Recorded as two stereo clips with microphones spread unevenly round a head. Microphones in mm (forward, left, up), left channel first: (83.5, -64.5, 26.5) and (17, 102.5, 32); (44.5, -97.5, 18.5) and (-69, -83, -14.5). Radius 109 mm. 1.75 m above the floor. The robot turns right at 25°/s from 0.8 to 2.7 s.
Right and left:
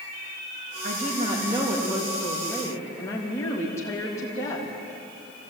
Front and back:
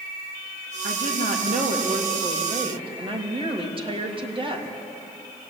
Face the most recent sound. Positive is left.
turn(degrees=-145)